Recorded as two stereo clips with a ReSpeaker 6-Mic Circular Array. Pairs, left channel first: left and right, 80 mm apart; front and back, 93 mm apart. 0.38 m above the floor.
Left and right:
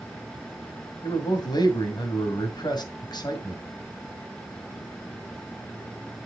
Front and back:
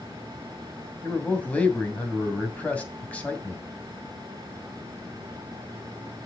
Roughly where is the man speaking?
Left.